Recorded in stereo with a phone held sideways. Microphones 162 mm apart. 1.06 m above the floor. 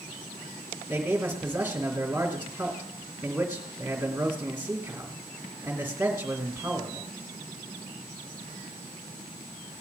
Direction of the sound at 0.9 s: 10° right (ahead or behind).